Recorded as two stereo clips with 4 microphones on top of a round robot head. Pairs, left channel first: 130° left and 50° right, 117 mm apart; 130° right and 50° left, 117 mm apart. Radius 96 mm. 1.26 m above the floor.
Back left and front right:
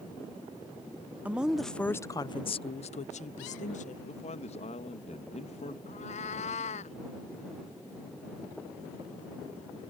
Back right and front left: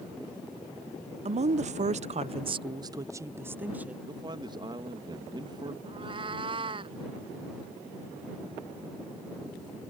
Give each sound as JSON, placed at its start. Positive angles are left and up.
{"t": 1.2, "sound": "a woman speaking", "azimuth_deg": 25}
{"t": 4.1, "sound": "a man speaking", "azimuth_deg": 105}
{"t": 5.9, "sound": "a cat meowing", "azimuth_deg": 100}